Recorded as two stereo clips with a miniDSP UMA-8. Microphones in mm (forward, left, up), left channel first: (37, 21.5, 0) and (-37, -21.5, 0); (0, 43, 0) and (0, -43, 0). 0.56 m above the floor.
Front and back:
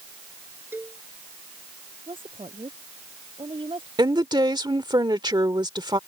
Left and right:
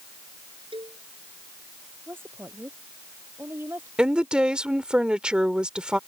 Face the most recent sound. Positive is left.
turn(degrees=-170)